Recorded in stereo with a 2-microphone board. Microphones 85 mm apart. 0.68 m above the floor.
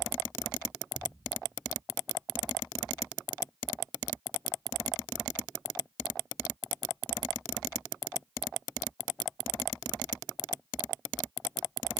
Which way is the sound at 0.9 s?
25° right (ahead or behind).